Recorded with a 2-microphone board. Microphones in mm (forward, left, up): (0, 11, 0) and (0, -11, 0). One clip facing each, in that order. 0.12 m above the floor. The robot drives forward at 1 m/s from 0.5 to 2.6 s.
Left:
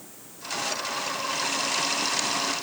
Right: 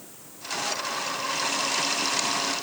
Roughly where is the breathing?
No breathing in this recording.